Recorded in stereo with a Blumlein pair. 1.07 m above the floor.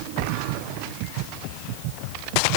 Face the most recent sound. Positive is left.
No sound to turn to.